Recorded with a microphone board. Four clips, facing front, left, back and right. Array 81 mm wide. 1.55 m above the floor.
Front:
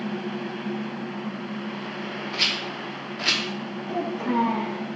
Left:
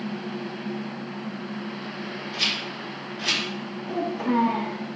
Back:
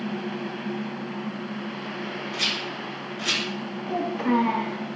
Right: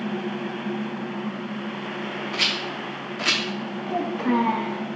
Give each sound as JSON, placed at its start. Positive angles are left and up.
{"t": 2.3, "sound": "a rattle", "azimuth_deg": -60, "distance_m": 0.7}
{"t": 3.9, "sound": "a child speaking", "azimuth_deg": -135, "distance_m": 1.2}